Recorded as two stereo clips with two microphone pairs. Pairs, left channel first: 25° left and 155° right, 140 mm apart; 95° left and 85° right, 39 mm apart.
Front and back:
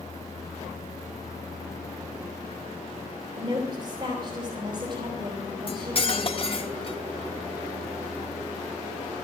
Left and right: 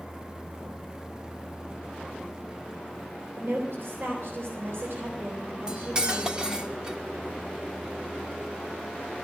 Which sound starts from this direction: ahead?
Cutlery clinking, at 5.7 s.